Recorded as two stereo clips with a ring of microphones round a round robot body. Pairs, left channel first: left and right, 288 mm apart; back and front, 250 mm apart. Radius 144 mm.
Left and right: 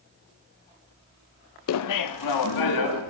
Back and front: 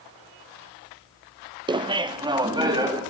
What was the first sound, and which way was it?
Laughter, 70° left.